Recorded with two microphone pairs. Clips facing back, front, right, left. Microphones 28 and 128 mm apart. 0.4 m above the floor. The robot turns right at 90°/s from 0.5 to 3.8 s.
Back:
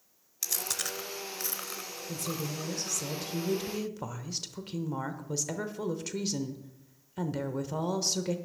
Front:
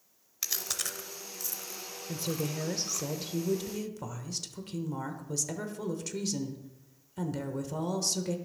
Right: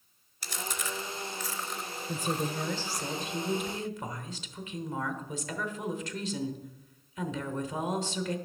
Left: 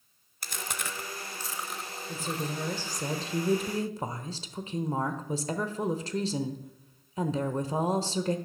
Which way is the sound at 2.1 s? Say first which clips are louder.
Front 2 dB, right 2 dB; 45° right.